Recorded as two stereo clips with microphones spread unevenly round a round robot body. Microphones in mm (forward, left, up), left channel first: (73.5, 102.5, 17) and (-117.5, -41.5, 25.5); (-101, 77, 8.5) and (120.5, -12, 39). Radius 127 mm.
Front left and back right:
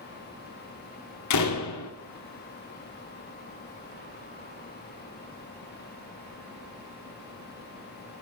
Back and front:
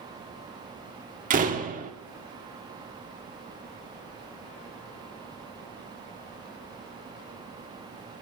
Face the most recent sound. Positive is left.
turn(degrees=35)